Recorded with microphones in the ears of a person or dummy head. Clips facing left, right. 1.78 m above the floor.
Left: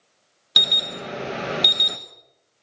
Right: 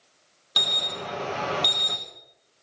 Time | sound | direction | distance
0.6 | an alarm | 25° left (ahead or behind) | 1.3 m